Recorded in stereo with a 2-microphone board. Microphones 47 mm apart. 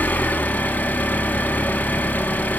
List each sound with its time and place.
0.0 s an engine running: 40° left (ahead or behind), 0.8 m